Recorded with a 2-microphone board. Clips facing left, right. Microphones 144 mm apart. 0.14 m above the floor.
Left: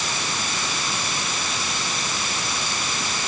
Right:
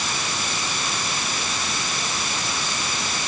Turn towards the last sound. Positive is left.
No sound to turn to.